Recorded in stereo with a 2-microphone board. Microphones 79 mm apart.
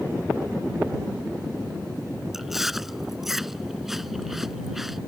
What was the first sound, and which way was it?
Chewing, 5° right (ahead or behind).